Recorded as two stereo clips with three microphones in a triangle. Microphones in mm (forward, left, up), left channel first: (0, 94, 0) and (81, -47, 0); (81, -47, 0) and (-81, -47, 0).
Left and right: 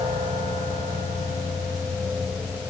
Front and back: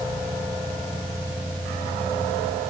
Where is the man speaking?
No man speaking in this recording.